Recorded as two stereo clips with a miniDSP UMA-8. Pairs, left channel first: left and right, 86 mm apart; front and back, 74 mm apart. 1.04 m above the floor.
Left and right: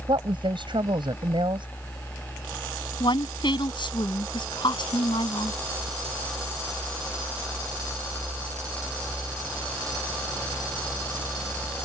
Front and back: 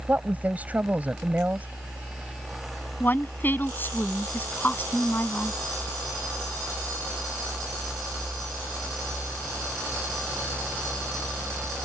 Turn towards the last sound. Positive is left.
turn(degrees=65)